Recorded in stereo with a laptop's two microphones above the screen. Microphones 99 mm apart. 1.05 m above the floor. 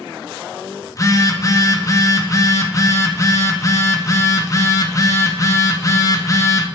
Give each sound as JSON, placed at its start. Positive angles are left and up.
{"t": 0.9, "sound": "a phone buzzing", "side_deg": 35, "distance_m": 0.9}